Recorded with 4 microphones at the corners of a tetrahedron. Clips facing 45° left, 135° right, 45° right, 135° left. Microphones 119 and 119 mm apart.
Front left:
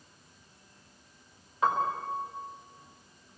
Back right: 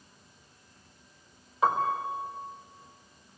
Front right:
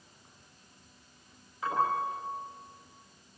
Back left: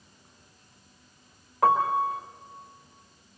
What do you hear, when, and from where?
1.6 s a piano: 140° left, 4.5 m